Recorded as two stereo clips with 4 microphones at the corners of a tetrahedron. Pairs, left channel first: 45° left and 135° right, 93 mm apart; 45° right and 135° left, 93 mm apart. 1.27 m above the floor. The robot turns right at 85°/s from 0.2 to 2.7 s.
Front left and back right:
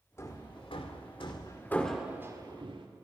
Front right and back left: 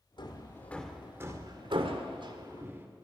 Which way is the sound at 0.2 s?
15° right.